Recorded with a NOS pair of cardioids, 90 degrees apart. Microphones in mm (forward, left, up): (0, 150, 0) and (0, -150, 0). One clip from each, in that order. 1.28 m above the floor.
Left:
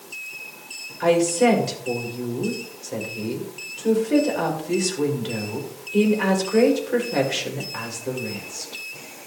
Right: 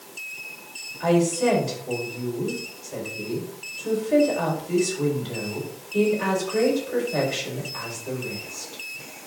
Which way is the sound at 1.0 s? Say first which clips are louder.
Left 3 dB; 55° left.